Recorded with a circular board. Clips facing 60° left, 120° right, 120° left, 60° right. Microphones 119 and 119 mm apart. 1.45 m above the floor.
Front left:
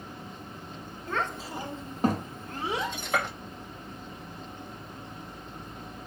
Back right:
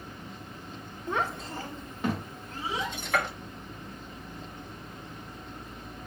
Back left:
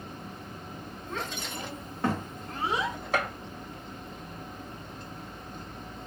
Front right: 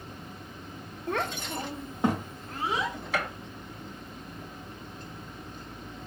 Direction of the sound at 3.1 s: 125° left.